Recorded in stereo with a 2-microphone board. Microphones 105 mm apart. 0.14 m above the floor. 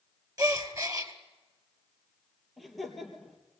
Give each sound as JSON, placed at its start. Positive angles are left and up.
{"t": 0.4, "sound": "a gasp", "side_deg": -35, "distance_m": 2.0}
{"t": 2.6, "sound": "laughter", "side_deg": 0, "distance_m": 3.5}